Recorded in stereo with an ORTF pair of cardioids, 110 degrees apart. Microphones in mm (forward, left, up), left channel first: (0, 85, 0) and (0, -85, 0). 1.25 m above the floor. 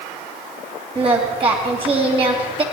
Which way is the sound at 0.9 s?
35° right.